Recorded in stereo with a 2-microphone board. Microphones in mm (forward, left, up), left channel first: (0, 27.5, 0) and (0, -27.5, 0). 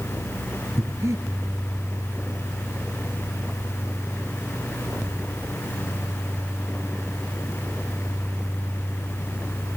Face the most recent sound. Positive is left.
turn(degrees=-60)  # may be behind; listen again after turning